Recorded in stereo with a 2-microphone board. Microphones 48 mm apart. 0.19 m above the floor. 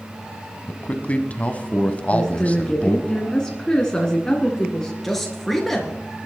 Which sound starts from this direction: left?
A man speaking, at 0.7 s.